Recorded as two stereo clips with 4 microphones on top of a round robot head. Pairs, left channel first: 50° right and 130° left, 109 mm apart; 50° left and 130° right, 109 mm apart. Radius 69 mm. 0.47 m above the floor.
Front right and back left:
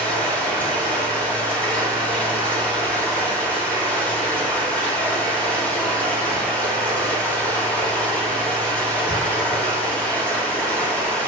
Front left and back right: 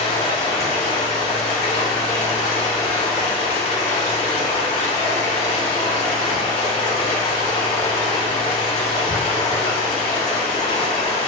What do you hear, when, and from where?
0.0 s running water: 25° left, 3 m